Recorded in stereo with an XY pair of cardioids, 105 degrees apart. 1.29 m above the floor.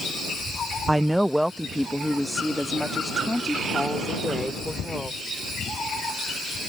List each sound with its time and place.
0.9 s a woman speaking: 10° right; by 5.2 s 5° left